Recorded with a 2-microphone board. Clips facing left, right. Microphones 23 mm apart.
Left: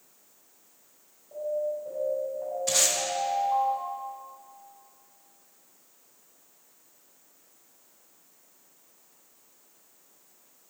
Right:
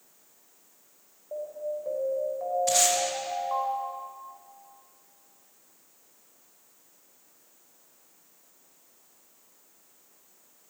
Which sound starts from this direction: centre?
Tape being pulled, at 2.7 s.